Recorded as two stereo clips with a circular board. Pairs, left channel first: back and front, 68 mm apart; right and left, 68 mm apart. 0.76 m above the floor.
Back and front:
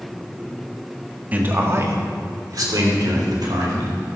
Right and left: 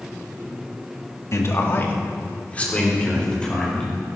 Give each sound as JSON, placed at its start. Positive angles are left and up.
{"t": 1.3, "sound": "a man speaking", "azimuth_deg": -60, "distance_m": 1.3}